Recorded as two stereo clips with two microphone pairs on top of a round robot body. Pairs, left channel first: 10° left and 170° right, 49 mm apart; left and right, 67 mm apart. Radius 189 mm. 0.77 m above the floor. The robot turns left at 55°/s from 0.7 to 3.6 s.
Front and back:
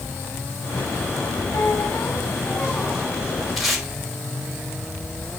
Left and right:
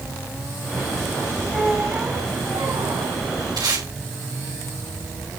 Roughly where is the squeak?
Ahead.